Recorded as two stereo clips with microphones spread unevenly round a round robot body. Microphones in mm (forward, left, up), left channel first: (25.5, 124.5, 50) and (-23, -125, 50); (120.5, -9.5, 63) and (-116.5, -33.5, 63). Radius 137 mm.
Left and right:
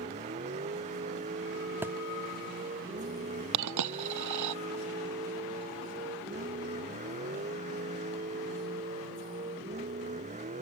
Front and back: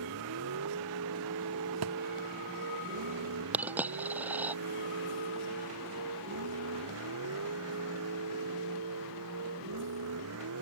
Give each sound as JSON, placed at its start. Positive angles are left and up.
{"t": 0.0, "sound": "a vehicle", "azimuth_deg": -165}
{"t": 1.8, "sound": "a thud", "azimuth_deg": 175}
{"t": 3.5, "sound": "a dropped coin", "azimuth_deg": -90}